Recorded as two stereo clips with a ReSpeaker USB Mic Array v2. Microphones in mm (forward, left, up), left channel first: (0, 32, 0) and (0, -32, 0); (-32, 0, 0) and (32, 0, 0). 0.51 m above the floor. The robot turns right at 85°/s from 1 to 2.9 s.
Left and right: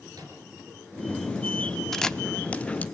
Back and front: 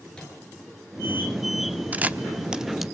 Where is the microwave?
105° right, 5.5 m.